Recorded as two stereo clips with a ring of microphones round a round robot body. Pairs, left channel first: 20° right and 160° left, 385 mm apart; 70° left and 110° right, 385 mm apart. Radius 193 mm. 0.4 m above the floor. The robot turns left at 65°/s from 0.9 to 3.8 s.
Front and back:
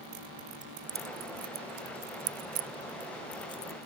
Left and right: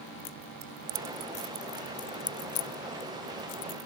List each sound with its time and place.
0.6 s keys jangling: 135° right; by 3.8 s 40° left